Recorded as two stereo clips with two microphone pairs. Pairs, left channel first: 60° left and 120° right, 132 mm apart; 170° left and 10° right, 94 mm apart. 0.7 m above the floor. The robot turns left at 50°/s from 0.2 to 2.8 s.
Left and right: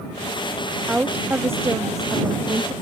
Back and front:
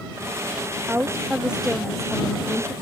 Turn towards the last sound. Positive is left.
turn(degrees=-140)